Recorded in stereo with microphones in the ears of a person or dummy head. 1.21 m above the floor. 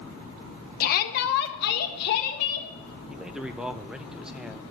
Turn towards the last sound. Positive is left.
turn(degrees=0)  # may be behind; listen again after turning